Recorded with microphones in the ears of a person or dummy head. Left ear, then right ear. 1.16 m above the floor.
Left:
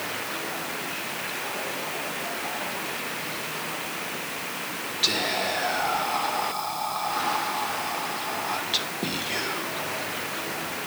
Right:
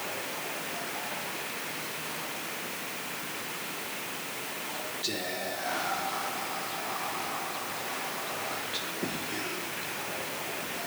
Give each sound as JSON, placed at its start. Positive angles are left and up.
{"t": 5.0, "sound": "whispering", "side_deg": 30, "distance_m": 1.1}